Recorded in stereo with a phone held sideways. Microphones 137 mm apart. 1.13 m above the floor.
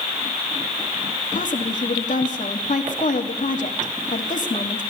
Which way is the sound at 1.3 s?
65° left (ahead or behind).